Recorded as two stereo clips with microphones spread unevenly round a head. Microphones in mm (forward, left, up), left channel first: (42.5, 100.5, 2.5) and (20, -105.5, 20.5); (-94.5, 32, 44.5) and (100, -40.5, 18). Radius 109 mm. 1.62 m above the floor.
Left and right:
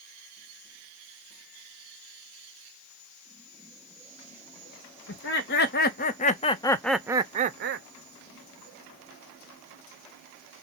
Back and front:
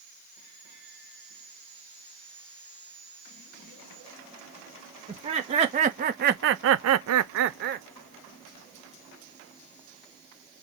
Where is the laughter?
45° left, 1.2 m; by 7.9 s 75° right, 0.6 m.